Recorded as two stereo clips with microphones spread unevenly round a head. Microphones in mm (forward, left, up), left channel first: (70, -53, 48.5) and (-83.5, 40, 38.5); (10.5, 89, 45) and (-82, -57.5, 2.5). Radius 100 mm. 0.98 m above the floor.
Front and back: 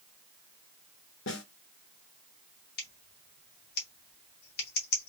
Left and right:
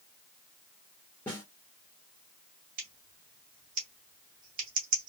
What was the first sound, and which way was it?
A snare drum, 25° right.